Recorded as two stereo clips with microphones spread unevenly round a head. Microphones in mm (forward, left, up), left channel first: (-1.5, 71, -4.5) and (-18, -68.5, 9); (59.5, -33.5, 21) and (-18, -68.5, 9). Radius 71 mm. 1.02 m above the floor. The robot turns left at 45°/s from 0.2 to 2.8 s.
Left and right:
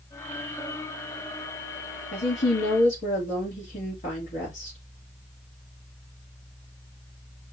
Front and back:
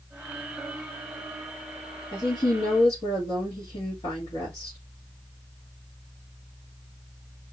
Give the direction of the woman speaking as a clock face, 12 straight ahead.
9 o'clock.